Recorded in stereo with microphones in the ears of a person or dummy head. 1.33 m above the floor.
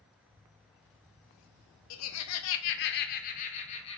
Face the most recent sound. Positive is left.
turn(degrees=30)  # may be behind; listen again after turning